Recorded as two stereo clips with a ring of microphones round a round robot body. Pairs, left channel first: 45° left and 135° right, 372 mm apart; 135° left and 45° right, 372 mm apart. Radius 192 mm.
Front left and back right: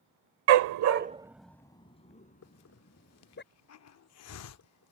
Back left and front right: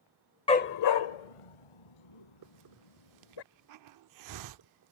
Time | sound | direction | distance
0.5 | a dog barking | 150° right | ?
2.4 | a hiss | 5° right | ?